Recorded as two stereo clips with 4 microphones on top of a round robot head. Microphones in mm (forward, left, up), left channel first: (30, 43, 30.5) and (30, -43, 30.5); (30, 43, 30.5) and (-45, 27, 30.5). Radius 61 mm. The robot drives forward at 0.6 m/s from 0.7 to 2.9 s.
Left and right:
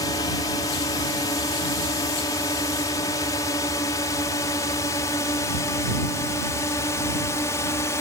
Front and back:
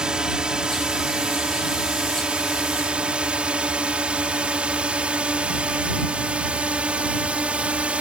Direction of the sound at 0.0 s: 115° left.